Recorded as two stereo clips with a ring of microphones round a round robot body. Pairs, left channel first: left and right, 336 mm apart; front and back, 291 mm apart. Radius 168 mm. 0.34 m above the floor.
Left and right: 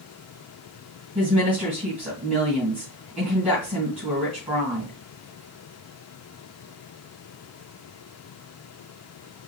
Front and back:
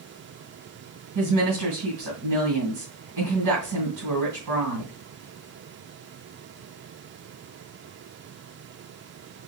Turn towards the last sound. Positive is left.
turn(degrees=-175)